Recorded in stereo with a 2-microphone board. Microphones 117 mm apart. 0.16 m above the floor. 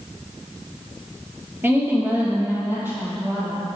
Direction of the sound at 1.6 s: 15° right (ahead or behind).